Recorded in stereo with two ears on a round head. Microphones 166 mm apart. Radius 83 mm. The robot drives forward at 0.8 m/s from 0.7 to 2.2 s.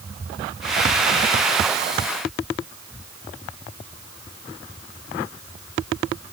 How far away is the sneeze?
No sneeze in this recording.